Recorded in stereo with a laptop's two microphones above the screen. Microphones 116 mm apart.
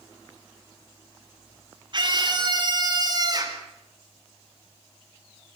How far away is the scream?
About 3.5 m.